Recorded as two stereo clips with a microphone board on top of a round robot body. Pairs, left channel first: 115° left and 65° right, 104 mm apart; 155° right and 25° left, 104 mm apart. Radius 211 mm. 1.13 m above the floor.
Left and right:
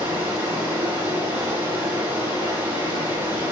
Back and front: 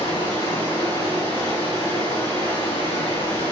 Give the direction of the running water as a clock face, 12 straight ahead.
4 o'clock.